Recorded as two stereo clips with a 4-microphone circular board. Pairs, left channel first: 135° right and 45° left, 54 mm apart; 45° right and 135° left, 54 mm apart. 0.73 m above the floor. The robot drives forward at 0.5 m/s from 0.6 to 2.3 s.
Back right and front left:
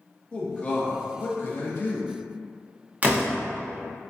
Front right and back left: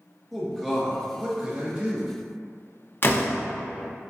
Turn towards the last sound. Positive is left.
turn(degrees=-10)